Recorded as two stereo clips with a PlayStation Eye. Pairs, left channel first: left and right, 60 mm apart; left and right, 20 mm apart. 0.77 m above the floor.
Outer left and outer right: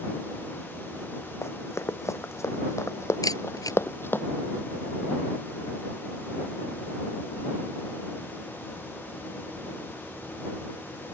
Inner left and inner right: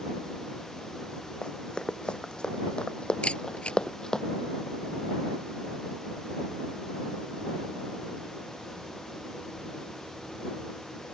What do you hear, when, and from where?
1.4 s running footsteps: 50° left (ahead or behind); by 4.2 s 40° left (ahead or behind)
3.2 s a camera shutter: 90° left